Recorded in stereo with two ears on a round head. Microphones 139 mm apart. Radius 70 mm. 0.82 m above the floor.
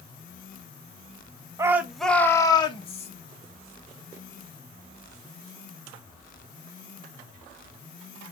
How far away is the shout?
About 0.8 m.